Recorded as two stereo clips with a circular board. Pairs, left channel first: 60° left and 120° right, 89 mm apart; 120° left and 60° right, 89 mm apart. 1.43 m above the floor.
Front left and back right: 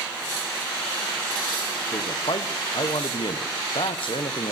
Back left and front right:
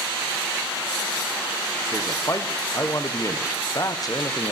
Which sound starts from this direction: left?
A man speaking, at 1.9 s.